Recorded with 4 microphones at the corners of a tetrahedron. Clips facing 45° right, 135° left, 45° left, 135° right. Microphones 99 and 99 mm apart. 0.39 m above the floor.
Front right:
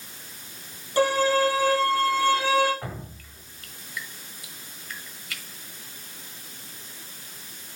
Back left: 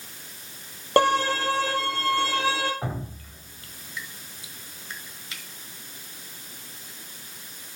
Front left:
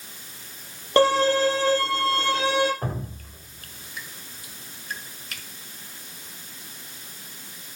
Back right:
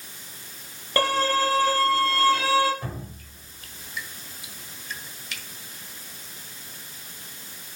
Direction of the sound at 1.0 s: 110° left.